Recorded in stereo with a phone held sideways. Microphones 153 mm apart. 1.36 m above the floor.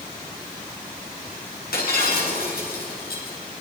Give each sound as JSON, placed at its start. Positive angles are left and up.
{"t": 1.7, "sound": "breaking glass", "side_deg": 85, "distance_m": 8.0}